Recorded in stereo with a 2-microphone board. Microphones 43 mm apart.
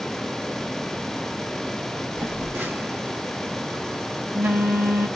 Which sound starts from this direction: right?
A phone buzzing, at 2.2 s.